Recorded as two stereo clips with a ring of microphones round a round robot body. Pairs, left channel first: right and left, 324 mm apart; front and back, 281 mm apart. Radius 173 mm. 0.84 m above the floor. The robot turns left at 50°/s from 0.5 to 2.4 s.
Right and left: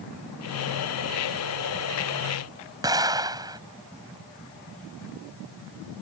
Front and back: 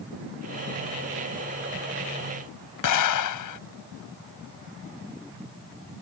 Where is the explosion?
10° left.